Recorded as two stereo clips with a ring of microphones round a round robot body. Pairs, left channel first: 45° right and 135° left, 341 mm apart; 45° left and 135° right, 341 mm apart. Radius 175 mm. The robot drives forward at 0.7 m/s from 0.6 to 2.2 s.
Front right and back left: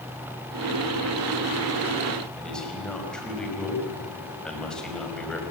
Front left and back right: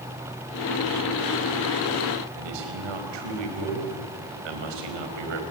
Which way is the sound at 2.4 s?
135° right.